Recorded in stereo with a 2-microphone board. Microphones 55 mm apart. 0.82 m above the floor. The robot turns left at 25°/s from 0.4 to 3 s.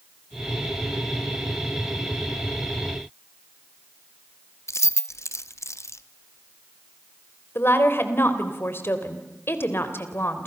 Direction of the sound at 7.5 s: 45° left (ahead or behind).